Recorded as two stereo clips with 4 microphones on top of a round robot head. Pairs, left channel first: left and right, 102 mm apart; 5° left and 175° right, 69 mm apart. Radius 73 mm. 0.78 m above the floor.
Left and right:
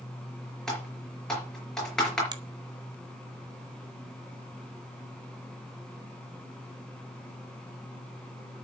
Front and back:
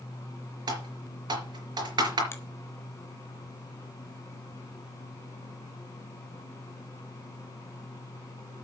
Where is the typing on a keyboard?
175° left, 4.5 m.